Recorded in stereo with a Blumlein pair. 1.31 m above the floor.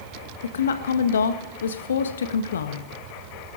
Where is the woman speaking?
65° left, 1.5 m.